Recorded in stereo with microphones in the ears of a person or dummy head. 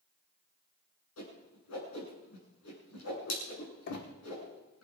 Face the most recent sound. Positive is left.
turn(degrees=60)  # may be behind; listen again after turning